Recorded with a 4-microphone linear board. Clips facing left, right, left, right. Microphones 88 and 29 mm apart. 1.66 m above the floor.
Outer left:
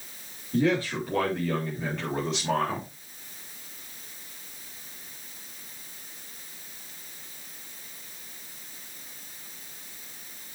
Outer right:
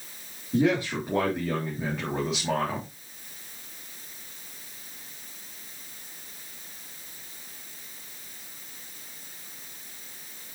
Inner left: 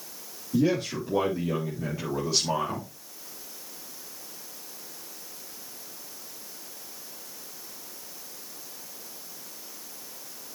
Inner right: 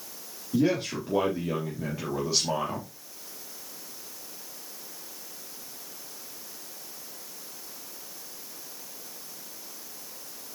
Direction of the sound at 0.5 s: 20° right (ahead or behind).